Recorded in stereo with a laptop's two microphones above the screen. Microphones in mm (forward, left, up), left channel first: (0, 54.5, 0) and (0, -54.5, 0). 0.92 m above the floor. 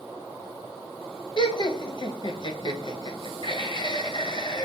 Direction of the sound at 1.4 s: 45° left (ahead or behind).